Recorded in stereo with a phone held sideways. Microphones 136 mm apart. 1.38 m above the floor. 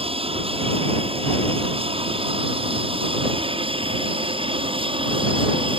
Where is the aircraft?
40° right (ahead or behind).